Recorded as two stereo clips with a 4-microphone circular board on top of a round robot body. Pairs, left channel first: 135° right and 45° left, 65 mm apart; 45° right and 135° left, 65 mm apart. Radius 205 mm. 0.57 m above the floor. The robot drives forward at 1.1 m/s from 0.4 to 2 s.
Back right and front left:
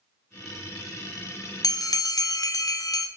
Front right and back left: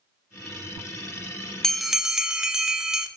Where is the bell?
130° right, 0.9 m; by 3.1 s 145° right, 1.1 m.